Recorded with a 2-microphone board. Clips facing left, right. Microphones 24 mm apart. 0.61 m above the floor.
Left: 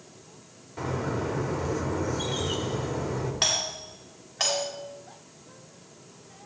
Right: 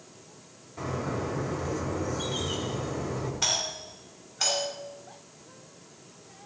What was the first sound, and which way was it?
A bird, 30° left (ahead or behind).